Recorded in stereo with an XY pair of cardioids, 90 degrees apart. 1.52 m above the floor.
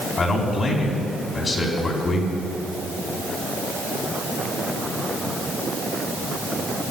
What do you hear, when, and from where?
0.2 s a man speaking: 45° left, 3.5 m